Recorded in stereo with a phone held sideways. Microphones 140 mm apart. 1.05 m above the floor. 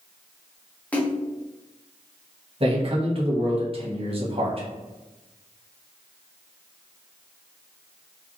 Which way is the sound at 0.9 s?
10° left (ahead or behind).